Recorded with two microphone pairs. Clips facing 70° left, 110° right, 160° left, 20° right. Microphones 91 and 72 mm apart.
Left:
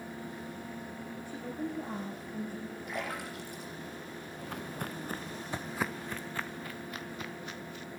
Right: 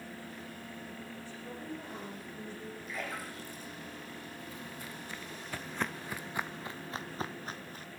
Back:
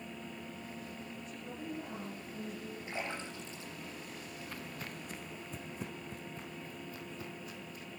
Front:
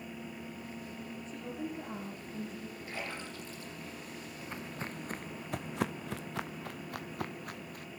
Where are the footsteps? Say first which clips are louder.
Left 5 dB, front 5 dB; 50° left, 1.1 m; by 7.8 s 60° right, 1.9 m.